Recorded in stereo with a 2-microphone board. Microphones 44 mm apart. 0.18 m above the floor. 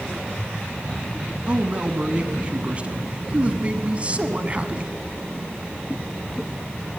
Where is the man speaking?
30° right (ahead or behind), 1.1 m.